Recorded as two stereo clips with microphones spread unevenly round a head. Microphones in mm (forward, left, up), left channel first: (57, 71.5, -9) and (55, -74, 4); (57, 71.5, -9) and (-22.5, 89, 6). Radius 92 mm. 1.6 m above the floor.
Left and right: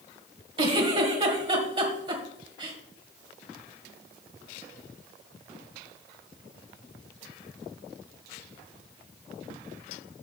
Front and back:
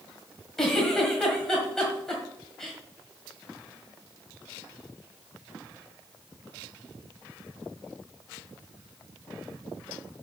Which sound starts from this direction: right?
A giggle, at 0.6 s.